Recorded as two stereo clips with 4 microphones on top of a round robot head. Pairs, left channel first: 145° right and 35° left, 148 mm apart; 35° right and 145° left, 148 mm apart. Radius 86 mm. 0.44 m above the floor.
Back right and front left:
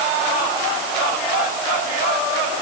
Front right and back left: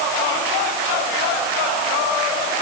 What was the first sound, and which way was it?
Only background noise.